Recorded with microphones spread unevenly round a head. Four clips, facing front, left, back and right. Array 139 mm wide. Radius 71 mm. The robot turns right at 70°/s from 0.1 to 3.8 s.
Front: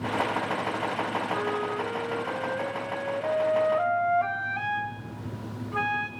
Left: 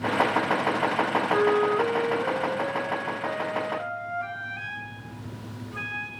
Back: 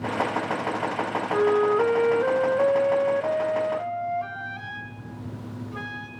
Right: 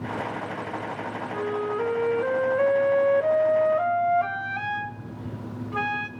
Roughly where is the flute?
Behind left.